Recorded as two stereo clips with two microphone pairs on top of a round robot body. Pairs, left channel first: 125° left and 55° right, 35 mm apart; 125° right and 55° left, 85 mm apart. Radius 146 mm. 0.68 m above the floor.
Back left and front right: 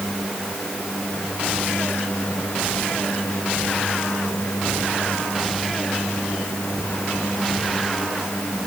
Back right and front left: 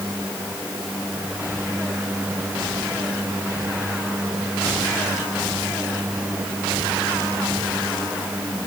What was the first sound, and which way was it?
Only background noise.